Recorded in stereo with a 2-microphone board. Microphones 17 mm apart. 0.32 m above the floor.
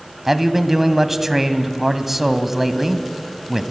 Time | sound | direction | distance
0.3 | a man speaking | 15° right (ahead or behind) | 1.7 m